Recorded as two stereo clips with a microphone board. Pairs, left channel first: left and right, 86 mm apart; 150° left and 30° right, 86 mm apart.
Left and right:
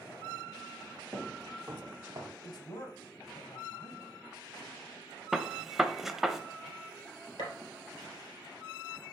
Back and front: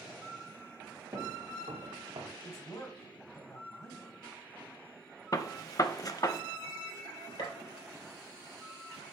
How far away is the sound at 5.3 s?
About 0.6 m.